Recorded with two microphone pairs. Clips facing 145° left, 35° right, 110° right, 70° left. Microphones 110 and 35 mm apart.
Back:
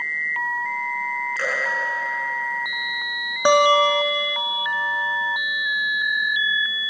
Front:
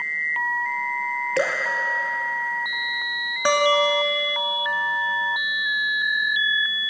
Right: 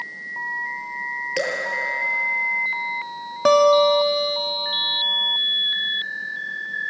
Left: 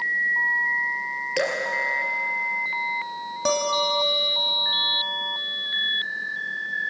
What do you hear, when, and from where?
1.4 s dripping: 20° right, 3.5 m
3.5 s a guitar: 145° right, 1.4 m